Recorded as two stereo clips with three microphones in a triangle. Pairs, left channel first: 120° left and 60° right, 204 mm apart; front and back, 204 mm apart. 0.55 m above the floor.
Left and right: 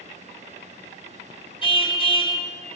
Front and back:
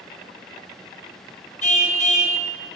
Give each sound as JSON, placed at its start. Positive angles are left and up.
{"t": 1.6, "sound": "a car horn", "azimuth_deg": 55, "distance_m": 3.5}